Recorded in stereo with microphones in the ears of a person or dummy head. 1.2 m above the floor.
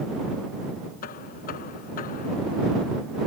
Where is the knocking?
55° left (ahead or behind).